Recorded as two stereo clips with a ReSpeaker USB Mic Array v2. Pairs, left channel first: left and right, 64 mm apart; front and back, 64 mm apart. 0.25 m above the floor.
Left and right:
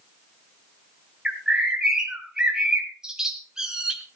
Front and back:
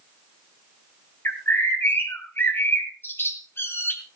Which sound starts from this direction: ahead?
A bird, at 1.2 s.